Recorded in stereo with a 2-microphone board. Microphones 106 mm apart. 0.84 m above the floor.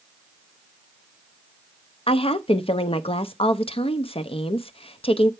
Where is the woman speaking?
60° left (ahead or behind), 0.7 m.